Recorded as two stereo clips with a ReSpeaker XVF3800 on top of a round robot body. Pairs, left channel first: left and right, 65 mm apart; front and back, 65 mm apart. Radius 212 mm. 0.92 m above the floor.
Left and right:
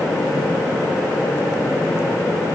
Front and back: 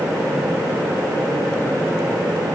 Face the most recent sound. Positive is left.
No sound to turn to.